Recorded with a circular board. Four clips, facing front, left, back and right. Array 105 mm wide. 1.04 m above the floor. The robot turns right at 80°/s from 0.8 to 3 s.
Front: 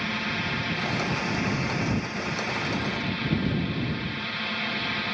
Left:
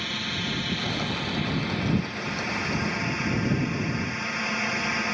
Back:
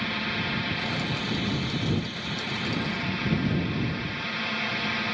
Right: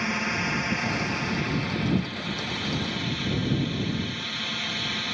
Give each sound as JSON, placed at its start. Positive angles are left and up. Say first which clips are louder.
{"t": 0.0, "sound": "a drone", "louder": "right 5 dB, even", "azimuth_deg": -80}